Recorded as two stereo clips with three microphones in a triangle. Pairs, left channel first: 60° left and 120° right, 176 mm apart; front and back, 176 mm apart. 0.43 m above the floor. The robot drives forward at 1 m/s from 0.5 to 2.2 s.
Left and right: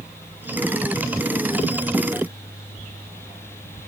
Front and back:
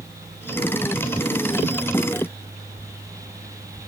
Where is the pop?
I don't hear a pop.